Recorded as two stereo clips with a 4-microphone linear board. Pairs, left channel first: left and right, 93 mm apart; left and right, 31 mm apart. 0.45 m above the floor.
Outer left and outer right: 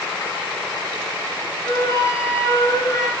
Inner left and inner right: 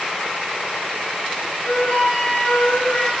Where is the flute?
35° left (ahead or behind), 2 m.